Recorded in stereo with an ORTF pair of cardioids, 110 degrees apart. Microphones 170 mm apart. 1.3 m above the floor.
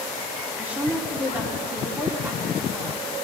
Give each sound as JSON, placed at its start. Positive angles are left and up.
{"t": 0.6, "sound": "a woman speaking", "azimuth_deg": -10, "distance_m": 3.0}